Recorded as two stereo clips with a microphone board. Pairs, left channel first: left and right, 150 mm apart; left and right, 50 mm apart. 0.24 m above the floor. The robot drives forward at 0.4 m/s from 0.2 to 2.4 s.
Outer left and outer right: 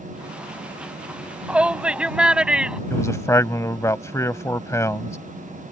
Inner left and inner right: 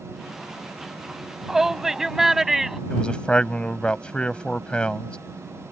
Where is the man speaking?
20° left (ahead or behind).